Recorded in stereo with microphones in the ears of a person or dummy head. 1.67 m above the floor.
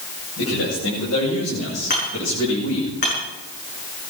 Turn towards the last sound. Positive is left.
turn(degrees=45)  # may be behind; listen again after turning